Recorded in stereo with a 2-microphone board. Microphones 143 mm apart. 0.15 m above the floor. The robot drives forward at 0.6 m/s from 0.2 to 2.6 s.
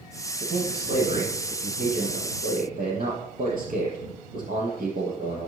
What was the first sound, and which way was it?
A man speaking, 70° right (ahead or behind).